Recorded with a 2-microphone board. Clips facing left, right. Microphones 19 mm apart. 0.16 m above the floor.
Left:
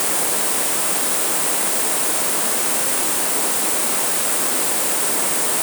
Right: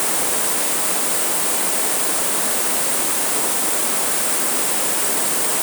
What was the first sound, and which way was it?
Only background noise.